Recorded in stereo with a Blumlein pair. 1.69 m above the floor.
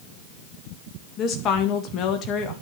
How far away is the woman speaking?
About 2 m.